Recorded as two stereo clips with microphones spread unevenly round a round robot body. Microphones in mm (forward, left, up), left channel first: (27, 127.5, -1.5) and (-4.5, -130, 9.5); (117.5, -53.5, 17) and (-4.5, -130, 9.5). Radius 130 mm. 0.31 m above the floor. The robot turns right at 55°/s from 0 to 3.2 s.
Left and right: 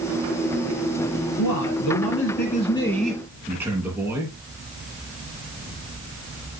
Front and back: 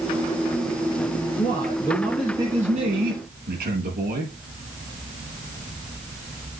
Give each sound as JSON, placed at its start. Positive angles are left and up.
{"t": 1.4, "sound": "a man speaking", "azimuth_deg": 80, "distance_m": 6.5}